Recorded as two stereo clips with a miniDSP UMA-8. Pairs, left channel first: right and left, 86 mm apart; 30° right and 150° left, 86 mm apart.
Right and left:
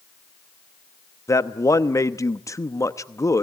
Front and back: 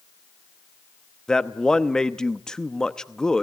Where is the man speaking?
110° right, 0.8 m.